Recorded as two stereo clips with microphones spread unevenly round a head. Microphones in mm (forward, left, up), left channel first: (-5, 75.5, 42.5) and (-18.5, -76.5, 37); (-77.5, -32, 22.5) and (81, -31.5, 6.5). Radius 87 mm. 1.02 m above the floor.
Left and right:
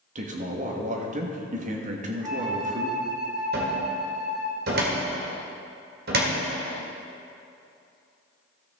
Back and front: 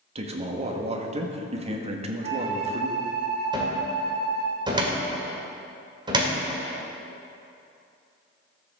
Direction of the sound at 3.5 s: 65° right.